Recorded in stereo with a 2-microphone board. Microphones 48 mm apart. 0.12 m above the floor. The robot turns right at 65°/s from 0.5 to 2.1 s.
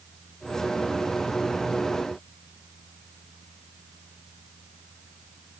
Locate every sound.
Only background noise.